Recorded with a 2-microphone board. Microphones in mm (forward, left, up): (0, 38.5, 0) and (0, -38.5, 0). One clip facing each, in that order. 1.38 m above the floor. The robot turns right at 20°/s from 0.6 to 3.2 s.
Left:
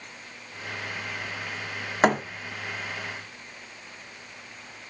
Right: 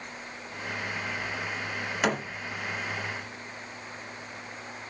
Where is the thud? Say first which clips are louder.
Left 7 dB; 40° left (ahead or behind), 1.5 m; by 2.2 s 45° left (ahead or behind), 1.5 m.